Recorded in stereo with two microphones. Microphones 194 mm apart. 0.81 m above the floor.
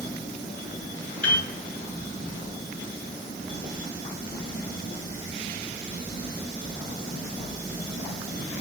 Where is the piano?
85° right, 5.5 m.